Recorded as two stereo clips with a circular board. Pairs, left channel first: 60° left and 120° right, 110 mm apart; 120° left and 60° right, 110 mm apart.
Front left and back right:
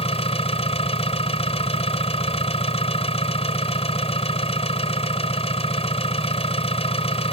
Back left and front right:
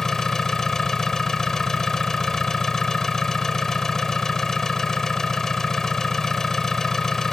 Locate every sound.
0.0 s an engine running: 35° left